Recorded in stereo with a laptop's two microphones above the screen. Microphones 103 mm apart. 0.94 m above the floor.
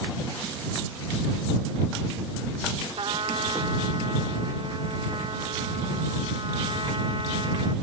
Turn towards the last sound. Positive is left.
turn(degrees=-65)  # may be behind; listen again after turning